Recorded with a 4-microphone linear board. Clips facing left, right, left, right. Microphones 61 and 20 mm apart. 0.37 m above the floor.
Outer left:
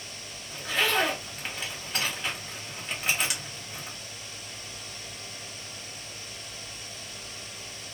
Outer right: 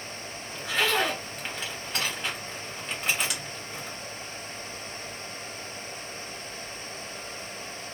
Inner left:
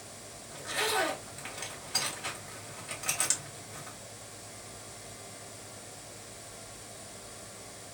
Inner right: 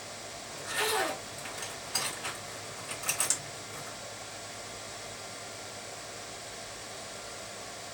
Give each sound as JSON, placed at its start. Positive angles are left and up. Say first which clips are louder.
{"t": 0.5, "sound": "a zipper", "louder": "even, even", "side_deg": 5, "distance_m": 1.6}